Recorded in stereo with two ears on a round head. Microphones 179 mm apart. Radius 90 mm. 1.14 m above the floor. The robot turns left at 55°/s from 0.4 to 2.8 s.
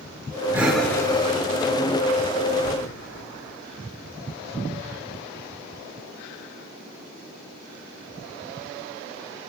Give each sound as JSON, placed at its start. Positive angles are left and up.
{"t": 0.5, "sound": "breathing", "side_deg": -10, "distance_m": 3.5}